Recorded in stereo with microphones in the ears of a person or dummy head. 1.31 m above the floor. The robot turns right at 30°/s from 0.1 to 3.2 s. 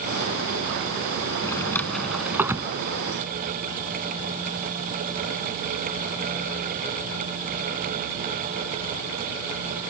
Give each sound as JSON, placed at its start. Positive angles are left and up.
{"t": 1.4, "sound": "a drawer", "side_deg": 15}